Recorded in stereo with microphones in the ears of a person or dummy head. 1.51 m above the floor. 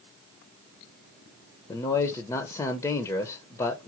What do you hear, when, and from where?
1.7 s a man speaking: 25° left (ahead or behind), 0.8 m